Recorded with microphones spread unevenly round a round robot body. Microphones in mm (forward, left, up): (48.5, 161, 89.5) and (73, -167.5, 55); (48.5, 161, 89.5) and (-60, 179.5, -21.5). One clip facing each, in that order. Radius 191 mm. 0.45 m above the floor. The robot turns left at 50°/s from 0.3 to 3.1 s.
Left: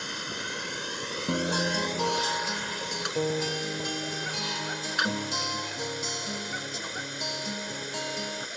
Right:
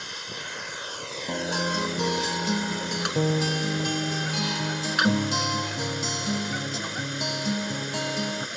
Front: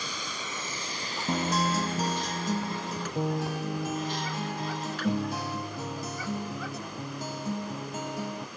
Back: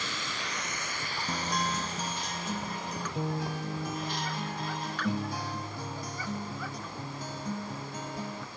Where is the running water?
65° left; by 8.6 s 75° right.